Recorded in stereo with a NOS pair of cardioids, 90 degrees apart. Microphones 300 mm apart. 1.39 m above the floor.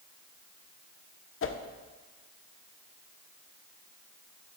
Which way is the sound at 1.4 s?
40° left.